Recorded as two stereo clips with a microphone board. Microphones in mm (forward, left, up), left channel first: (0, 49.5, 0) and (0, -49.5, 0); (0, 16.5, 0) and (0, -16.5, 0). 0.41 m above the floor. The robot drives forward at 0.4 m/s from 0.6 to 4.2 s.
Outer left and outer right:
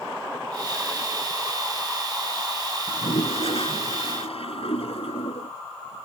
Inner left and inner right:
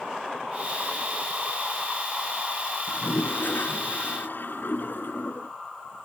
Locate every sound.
2.9 s a toilet flushing: 65° left (ahead or behind); by 5.5 s 70° left (ahead or behind)